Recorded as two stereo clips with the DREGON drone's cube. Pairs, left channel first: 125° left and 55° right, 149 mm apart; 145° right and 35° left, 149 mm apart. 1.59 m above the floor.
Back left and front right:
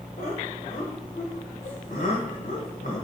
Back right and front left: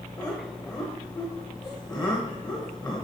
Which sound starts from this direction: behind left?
Laughter, at 0.2 s.